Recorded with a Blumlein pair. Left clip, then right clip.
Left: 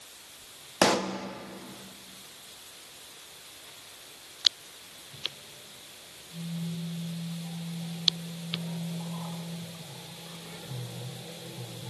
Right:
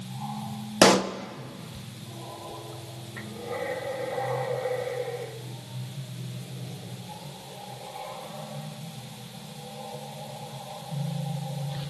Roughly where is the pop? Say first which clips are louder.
Right 5 dB; right.